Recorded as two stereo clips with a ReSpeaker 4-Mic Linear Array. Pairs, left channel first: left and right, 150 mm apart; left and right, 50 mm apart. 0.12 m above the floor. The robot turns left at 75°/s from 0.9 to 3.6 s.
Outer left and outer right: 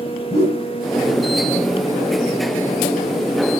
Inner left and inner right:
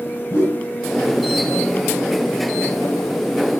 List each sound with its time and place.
0.3 s a whoosh: 45° left (ahead or behind), 3 m